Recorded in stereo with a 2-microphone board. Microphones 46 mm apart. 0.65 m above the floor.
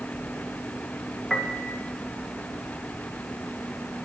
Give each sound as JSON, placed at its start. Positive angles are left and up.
{"t": 1.3, "sound": "a piano", "side_deg": 15, "distance_m": 1.1}